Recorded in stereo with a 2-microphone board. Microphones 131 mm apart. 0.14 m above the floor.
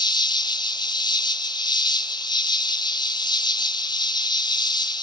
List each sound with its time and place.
0.0 s an insect: 35° left (ahead or behind), 0.9 m